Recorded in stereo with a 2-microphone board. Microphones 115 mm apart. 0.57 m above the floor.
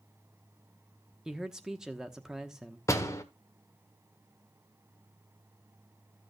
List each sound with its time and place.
1.2 s a man speaking: 5° right (ahead or behind), 0.8 m
2.9 s a door slam: 25° left (ahead or behind), 1.3 m